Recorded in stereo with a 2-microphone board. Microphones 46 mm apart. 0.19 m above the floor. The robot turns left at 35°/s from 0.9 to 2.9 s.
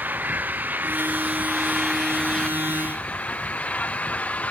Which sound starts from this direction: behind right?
An engine running, at 0.0 s.